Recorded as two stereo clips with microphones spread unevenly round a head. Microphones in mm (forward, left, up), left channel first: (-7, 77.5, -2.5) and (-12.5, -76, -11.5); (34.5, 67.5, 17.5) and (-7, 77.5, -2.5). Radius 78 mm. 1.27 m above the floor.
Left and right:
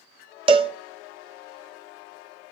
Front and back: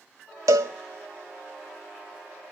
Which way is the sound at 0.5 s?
145° right.